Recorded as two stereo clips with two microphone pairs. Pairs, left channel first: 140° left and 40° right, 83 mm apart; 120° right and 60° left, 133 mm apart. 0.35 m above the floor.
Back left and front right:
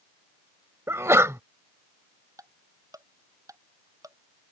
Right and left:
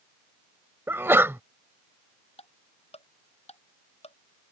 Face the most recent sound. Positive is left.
turn(degrees=-85)